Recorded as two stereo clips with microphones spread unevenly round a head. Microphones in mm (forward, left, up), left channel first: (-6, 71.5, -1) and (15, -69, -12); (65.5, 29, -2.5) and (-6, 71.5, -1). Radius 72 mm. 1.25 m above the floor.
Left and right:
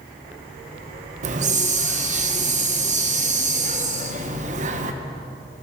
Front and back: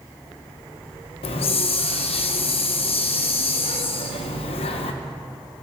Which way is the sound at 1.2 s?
40° right.